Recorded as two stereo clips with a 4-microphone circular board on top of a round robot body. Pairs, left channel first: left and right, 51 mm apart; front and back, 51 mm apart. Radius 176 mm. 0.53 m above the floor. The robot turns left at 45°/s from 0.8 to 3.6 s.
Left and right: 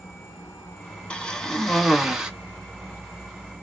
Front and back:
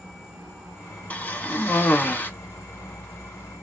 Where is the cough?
35° left, 1.4 m; by 2.3 s 20° right, 1.4 m.